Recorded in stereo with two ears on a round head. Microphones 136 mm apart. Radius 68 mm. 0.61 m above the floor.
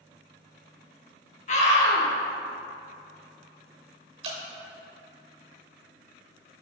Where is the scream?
45° left (ahead or behind), 0.9 m.